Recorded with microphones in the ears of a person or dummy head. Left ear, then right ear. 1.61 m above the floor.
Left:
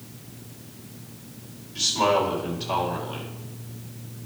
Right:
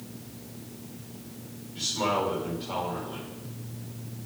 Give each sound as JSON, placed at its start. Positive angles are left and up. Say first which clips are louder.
{"t": 1.8, "sound": "a man speaking", "louder": "left 6 dB", "side_deg": 25, "distance_m": 4.5}